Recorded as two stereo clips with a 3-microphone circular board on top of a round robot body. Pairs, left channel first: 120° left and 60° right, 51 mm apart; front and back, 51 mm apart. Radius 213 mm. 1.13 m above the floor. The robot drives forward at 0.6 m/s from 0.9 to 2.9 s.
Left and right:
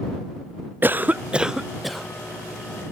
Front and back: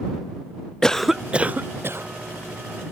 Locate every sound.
0.8 s a cough: 75° right; by 2.1 s 150° right